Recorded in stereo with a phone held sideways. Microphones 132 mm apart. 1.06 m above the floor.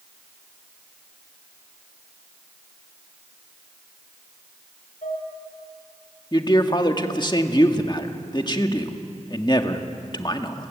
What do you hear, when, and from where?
5.0 s dishes clattering: 85° left, 8.5 m
6.3 s a man speaking: 35° left (ahead or behind), 1.8 m